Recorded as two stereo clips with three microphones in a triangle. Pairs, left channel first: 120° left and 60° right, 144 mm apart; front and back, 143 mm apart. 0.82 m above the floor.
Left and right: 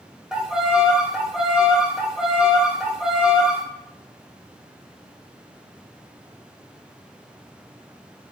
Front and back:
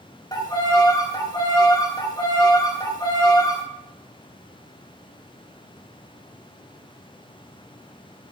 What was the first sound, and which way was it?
A violin, 20° left.